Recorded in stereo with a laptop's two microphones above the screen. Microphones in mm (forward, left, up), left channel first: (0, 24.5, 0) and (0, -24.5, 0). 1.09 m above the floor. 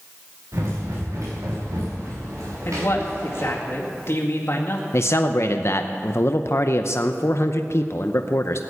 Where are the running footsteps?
80° right, 5.5 m.